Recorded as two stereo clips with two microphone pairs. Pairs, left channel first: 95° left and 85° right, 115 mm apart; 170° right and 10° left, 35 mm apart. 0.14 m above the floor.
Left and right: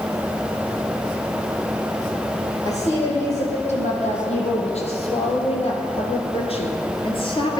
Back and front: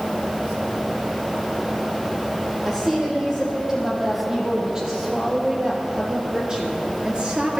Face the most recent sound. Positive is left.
turn(degrees=60)